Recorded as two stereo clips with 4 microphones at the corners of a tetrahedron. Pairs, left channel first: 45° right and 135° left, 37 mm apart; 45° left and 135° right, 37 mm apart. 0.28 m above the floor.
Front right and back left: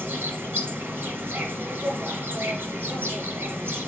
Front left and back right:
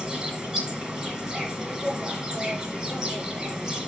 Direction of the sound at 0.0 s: 155° left.